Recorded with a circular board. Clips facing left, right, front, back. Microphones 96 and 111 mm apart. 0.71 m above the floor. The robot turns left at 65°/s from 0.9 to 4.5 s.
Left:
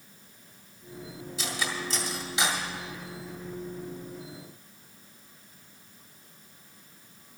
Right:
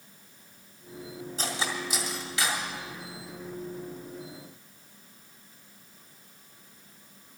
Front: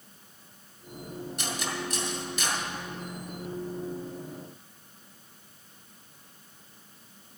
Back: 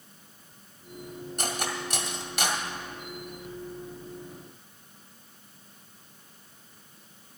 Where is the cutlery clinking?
135° right, 1.7 m; by 2.6 s 145° left, 1.7 m.